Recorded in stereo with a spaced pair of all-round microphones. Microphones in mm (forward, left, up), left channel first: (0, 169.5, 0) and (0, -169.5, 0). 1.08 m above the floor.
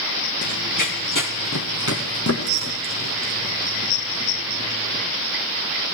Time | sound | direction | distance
0.4 | running footsteps | 55° left (ahead or behind) | 2 m